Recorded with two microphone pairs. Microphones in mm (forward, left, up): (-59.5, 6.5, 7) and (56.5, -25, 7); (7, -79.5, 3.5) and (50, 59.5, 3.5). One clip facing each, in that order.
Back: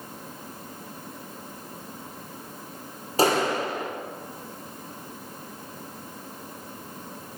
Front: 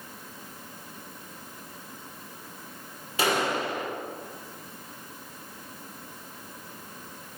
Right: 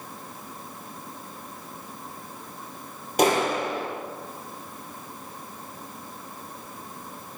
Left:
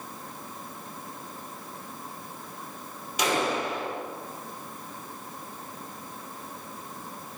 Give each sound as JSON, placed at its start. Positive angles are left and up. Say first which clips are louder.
{"t": 3.2, "sound": "a clap", "louder": "back 4 dB, right 5 dB", "azimuth_deg": -145, "distance_m": 7.5}